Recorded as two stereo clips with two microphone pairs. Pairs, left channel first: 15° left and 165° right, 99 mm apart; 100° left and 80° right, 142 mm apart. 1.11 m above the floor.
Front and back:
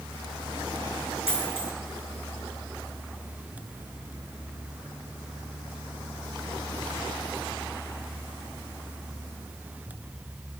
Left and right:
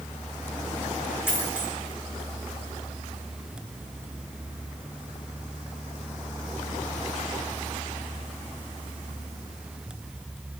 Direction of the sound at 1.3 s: 25° left.